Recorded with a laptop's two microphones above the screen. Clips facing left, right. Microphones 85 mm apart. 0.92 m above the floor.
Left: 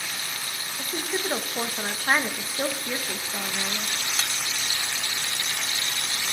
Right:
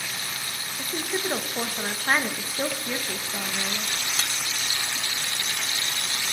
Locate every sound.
0.8 s a woman speaking: 5° left (ahead or behind), 0.7 m